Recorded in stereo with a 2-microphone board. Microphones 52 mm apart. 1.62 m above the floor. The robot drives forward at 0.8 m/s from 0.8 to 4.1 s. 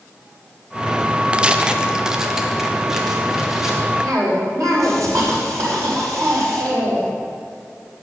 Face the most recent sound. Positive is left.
turn(degrees=-85)